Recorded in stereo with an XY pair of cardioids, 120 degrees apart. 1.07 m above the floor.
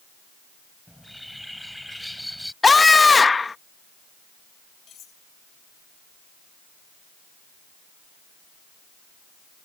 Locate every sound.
0.9 s a bird: straight ahead
2.6 s a scream: 20° left
4.9 s cutlery clinking: 50° left